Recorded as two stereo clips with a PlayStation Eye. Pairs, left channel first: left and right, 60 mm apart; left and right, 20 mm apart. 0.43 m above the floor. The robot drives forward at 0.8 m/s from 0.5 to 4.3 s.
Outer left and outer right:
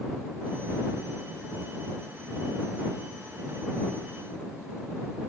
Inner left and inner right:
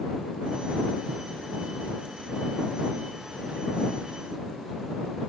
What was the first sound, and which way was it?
Only background noise.